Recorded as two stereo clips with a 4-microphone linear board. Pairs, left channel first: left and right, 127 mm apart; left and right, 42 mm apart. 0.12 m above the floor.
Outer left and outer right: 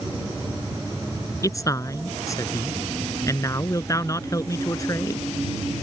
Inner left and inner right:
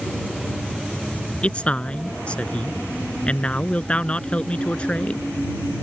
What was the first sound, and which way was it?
A man speaking, 30° left (ahead or behind).